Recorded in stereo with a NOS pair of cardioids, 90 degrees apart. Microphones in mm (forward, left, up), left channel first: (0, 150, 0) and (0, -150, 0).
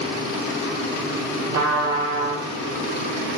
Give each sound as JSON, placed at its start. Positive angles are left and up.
{"t": 1.5, "sound": "a trumpet", "azimuth_deg": -55, "distance_m": 4.0}